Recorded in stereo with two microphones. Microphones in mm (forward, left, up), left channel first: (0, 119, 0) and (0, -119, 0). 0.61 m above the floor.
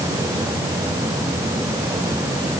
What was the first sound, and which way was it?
Only background noise.